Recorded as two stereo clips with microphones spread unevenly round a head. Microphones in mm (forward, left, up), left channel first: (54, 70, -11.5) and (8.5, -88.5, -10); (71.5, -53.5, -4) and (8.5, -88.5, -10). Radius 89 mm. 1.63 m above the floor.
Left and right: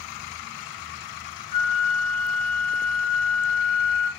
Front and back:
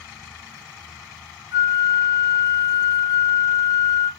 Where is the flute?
145° right, 4 m.